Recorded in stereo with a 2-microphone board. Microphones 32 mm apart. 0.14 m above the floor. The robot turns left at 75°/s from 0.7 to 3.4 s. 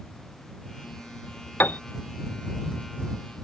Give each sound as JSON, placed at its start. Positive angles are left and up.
{"t": 1.6, "sound": "a piano", "side_deg": 70}